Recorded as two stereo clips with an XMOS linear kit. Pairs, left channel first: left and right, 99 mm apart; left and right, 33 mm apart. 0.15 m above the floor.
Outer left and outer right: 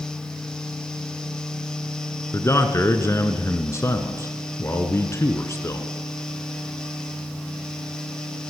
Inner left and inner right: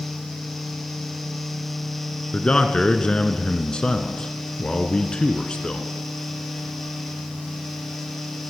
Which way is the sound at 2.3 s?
30° left (ahead or behind).